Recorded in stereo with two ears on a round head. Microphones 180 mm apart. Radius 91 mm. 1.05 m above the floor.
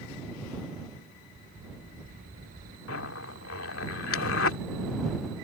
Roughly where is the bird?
Right.